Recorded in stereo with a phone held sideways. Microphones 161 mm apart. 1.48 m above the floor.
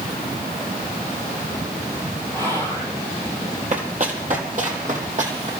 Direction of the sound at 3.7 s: 55° right (ahead or behind).